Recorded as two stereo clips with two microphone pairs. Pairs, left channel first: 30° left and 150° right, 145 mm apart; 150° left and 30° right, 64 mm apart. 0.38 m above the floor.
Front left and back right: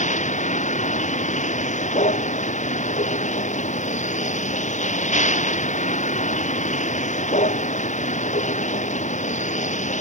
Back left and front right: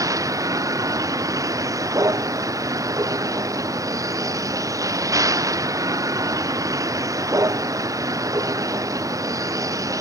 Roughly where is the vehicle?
Ahead.